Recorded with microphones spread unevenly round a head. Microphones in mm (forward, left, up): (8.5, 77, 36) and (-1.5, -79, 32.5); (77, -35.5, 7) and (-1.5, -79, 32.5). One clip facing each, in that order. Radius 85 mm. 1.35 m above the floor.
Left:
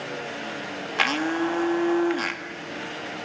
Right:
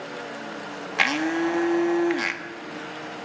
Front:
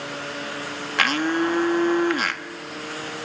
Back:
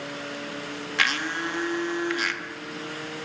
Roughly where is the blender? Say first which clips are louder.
Right 1 dB, front 7 dB; ahead.